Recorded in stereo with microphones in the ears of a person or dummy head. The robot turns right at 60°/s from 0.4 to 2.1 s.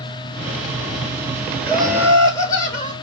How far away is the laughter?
About 0.9 m.